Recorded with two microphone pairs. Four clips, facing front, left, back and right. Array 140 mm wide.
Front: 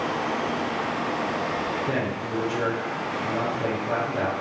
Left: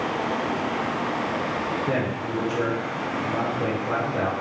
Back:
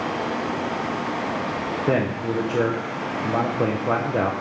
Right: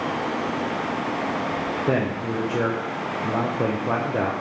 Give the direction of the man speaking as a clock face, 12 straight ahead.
5 o'clock.